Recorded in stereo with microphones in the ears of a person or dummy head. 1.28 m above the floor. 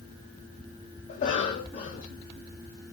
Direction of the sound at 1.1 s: 40° left (ahead or behind).